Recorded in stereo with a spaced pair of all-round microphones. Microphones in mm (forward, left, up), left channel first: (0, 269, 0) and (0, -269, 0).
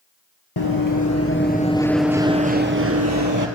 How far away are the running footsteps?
About 1.6 m.